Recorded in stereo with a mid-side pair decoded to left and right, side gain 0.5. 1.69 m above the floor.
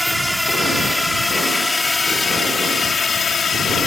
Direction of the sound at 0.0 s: Straight ahead.